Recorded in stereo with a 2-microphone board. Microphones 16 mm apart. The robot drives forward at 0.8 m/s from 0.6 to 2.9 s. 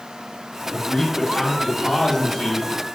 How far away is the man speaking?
About 3.5 m.